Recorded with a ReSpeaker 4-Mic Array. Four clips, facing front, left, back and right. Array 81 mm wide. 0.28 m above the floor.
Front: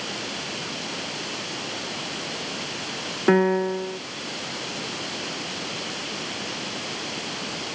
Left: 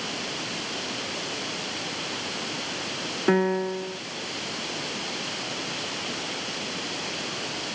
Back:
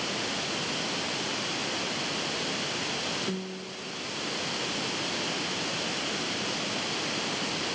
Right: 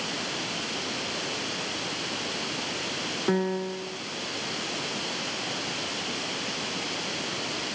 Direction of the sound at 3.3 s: 20° left.